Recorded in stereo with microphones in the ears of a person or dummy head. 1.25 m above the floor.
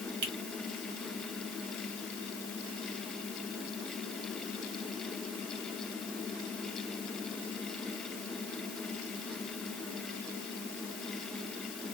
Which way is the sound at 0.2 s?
60° right (ahead or behind).